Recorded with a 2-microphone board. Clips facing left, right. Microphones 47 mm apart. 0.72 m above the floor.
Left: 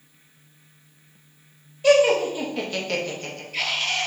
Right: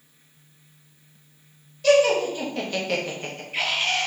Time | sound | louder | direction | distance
1.8 | laughter | left 1 dB | 15° left (ahead or behind) | 0.9 m